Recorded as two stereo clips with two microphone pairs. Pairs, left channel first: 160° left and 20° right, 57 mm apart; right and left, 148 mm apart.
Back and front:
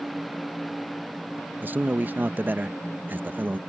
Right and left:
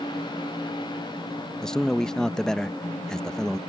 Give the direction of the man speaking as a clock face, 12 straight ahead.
12 o'clock.